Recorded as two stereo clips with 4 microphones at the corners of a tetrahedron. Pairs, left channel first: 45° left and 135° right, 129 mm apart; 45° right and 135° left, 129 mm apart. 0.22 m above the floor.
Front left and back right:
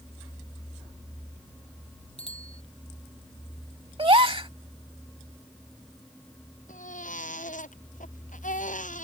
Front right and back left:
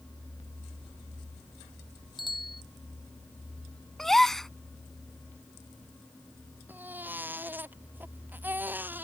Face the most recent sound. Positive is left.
turn(degrees=60)